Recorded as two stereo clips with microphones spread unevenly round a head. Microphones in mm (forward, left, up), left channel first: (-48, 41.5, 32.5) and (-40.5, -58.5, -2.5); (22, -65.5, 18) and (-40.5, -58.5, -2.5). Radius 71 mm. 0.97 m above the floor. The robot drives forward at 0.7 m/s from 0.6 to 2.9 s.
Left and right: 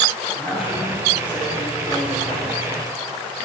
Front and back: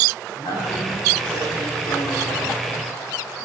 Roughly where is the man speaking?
Ahead.